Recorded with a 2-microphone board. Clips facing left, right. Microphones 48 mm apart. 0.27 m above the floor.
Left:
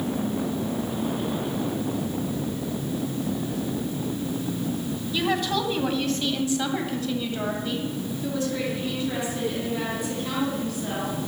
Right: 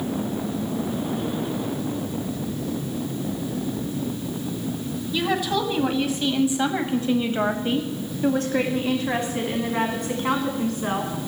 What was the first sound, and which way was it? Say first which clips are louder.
A woman speaking: right 2 dB; centre (ahead or behind).